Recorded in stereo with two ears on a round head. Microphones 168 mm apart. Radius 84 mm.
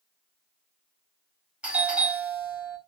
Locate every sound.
1.6 s a doorbell: 5° right (ahead or behind), 1.2 m